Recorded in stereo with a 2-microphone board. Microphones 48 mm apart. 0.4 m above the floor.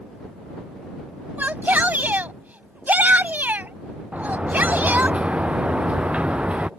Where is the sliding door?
25° right (ahead or behind).